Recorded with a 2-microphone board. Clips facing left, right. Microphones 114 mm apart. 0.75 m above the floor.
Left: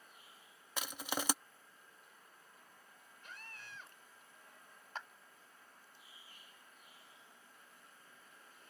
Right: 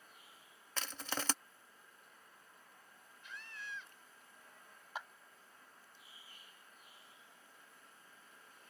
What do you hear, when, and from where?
0.8 s crushing: 10° left (ahead or behind)
3.2 s a scream: 50° left (ahead or behind)
5.0 s a clap: 10° right (ahead or behind)